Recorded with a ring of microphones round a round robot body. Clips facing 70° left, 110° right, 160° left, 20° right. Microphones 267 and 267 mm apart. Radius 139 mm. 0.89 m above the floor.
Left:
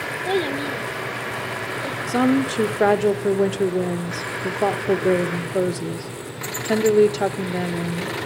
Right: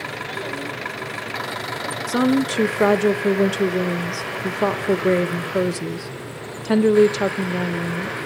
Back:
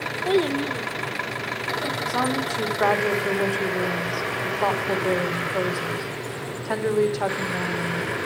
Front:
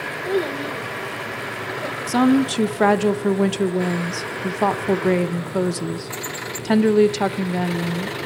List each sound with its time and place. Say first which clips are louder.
0.2 s a child speaking: left 10 dB, back 2 dB; 90° left, 1.3 m
2.1 s a woman speaking: even, front 13 dB; 30° right, 0.8 m